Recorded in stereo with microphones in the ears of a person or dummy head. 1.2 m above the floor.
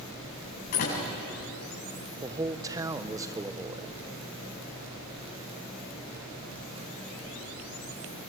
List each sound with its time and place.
0.7 s a door slam: 50° left (ahead or behind), 8 m
2.2 s a man speaking: 15° right (ahead or behind), 0.9 m